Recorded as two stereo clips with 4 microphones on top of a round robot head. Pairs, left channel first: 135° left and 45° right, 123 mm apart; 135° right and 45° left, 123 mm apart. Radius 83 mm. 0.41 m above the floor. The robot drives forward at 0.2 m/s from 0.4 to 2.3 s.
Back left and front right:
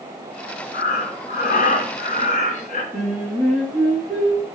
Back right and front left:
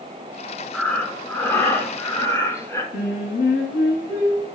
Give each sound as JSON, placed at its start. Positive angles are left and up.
{"t": 0.7, "sound": "breathing", "azimuth_deg": 140, "distance_m": 0.5}
{"t": 2.9, "sound": "singing", "azimuth_deg": -140, "distance_m": 1.3}